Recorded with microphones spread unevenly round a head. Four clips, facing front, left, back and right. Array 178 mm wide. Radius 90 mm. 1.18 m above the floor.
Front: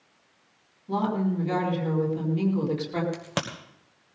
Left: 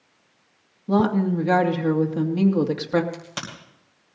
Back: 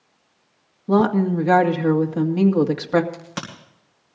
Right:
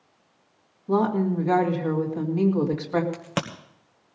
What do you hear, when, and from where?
0.9 s a woman speaking: 145° left, 2 m
3.1 s a crack: 60° right, 1.7 m